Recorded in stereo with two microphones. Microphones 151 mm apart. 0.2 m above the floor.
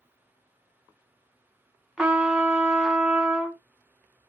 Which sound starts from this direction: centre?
A trumpet, at 2.0 s.